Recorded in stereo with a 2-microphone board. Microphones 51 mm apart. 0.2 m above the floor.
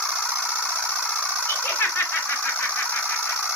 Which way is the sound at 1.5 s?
50° left (ahead or behind).